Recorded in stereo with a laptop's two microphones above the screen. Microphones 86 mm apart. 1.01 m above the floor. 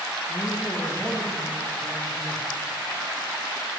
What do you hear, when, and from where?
0.3 s a man speaking: 30° left (ahead or behind), 1.0 m; by 2.4 s centre (ahead or behind), 3 m